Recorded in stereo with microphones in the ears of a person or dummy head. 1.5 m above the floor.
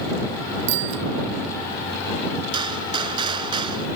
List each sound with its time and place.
0.7 s a bicycle bell: 70° right (ahead or behind)
2.5 s a gunshot: 30° right (ahead or behind)